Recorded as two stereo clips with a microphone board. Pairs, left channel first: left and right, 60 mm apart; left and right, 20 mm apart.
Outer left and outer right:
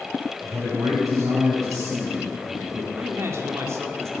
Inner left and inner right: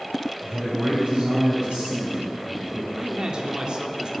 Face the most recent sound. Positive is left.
turn(degrees=-50)  # may be behind; listen again after turning